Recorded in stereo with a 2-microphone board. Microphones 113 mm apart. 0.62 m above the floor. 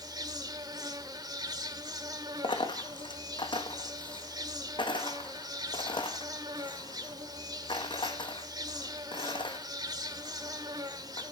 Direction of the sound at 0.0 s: 35° right (ahead or behind).